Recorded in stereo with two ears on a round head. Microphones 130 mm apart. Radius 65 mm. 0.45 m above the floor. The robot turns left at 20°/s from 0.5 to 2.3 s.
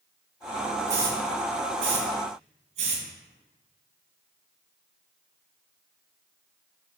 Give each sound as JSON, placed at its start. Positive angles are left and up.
{"t": 0.9, "sound": "a hiss", "side_deg": -25, "distance_m": 2.5}